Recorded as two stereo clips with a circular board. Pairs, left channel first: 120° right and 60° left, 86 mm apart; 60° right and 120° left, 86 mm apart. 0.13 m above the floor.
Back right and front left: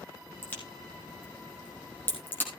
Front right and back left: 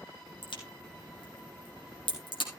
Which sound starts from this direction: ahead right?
A crack, at 0.4 s.